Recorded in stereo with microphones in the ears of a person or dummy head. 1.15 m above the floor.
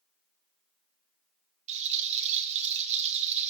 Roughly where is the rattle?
Right.